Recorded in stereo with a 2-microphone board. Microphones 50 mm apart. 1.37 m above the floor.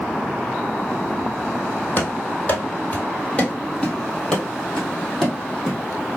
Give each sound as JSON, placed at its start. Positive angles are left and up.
{"t": 2.0, "sound": "running footsteps", "side_deg": 30, "distance_m": 1.7}